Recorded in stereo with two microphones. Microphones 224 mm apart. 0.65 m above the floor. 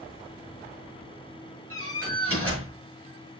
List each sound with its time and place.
1.7 s a door slam: 80° right, 7 m